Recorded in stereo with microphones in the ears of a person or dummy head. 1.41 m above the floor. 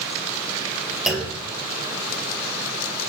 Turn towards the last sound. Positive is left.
turn(degrees=-5)  # may be behind; listen again after turning